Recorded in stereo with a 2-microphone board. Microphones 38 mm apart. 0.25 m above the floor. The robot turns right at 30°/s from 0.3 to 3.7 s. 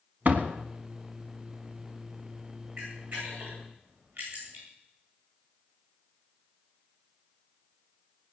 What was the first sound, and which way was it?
A door slam, 50° right (ahead or behind).